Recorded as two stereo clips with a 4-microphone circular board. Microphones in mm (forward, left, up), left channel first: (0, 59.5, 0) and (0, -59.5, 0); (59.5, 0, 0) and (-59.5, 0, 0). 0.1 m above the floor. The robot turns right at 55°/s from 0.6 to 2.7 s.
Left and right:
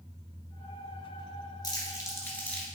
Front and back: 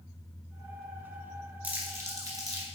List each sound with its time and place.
1.6 s crumpling: 110° left, 1.8 m; by 2.6 s 170° left, 1.8 m